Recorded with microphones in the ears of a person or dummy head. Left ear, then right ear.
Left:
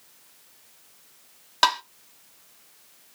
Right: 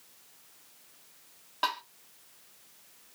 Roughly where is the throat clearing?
I don't hear throat clearing.